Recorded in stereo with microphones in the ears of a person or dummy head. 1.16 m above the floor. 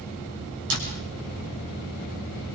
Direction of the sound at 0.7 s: 65° right (ahead or behind).